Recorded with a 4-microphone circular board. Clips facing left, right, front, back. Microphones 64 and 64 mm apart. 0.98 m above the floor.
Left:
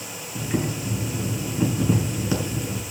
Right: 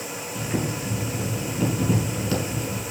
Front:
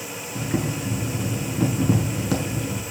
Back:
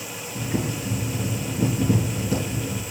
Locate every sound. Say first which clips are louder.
0.3 s boiling: left 2 dB, front 1 dB; 15° left, 5.5 m